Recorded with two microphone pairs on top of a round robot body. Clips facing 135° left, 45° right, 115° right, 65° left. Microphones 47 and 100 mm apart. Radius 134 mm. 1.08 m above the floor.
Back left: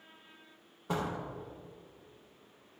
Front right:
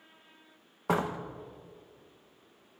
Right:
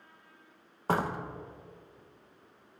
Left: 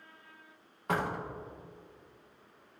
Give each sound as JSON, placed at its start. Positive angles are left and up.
{"t": 0.9, "sound": "a door slam", "azimuth_deg": -60, "distance_m": 0.6}